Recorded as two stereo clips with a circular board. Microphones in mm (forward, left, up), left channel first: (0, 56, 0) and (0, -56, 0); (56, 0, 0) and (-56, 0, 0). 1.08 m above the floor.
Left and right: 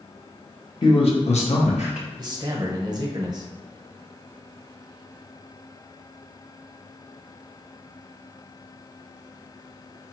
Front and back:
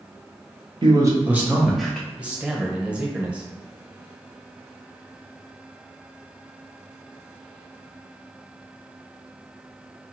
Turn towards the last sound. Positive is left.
turn(degrees=-110)